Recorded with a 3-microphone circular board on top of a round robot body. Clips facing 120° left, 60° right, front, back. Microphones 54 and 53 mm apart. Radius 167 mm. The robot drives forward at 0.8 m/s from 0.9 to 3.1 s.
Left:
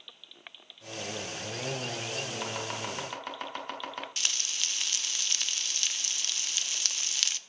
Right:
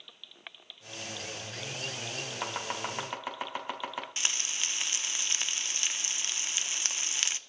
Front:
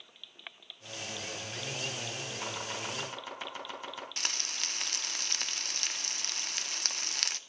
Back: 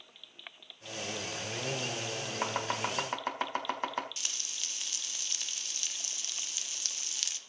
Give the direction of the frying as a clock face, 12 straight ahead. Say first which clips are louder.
Right 1 dB, front 5 dB; 12 o'clock.